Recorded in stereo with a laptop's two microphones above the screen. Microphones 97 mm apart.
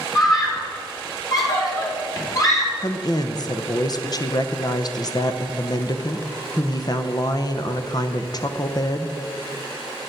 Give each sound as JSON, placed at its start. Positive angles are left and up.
{"t": 0.1, "sound": "a scream", "side_deg": 35, "distance_m": 3.0}
{"t": 2.8, "sound": "a woman speaking", "side_deg": 45, "distance_m": 0.6}